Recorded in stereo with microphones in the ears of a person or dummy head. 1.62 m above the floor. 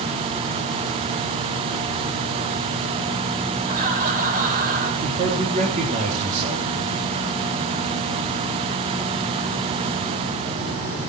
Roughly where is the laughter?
Right.